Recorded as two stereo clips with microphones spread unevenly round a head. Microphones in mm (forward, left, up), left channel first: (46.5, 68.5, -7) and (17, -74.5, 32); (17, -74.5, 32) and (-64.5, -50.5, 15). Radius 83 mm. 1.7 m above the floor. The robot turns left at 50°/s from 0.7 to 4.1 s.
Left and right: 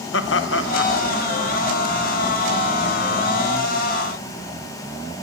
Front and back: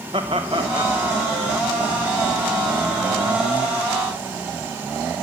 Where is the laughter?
95° left, 1.4 m; by 1.0 s 85° left, 1.4 m.